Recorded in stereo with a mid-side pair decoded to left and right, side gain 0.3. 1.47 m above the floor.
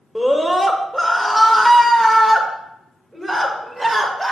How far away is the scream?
About 1.2 m.